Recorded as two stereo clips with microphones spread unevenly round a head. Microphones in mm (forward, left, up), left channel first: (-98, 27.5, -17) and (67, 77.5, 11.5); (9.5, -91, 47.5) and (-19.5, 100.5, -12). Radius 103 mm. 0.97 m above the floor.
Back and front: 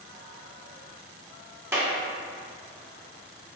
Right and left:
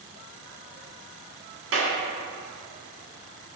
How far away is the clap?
About 2.5 m.